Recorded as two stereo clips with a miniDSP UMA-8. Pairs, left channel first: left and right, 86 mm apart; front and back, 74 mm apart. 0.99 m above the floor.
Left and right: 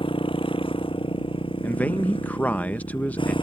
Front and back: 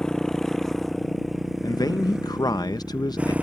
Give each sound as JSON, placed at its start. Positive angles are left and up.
{"t": 0.0, "sound": "a motorcycle", "azimuth_deg": 85}
{"t": 1.6, "sound": "a man speaking", "azimuth_deg": 20}